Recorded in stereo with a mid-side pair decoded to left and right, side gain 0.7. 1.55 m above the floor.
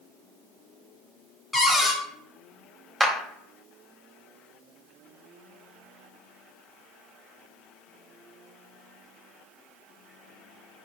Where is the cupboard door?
10° left, 0.7 m.